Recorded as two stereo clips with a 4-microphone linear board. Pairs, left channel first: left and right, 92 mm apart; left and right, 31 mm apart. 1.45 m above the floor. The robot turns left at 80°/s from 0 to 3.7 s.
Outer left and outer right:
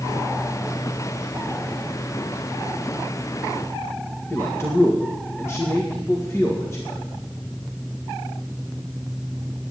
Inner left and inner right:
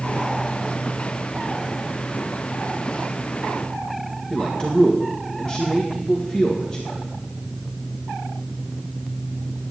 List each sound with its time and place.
4.3 s a man speaking: 30° left (ahead or behind), 1.7 m